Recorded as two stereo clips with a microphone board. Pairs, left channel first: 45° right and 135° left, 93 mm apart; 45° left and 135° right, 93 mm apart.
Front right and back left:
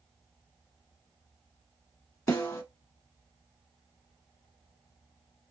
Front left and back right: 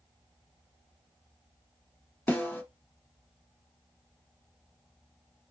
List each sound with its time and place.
2.3 s a snare drum: 10° right, 1.3 m